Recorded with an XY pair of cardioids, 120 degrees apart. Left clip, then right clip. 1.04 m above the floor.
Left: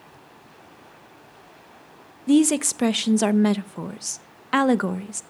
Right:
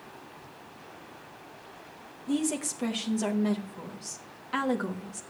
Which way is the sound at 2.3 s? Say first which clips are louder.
Left 11 dB; 65° left.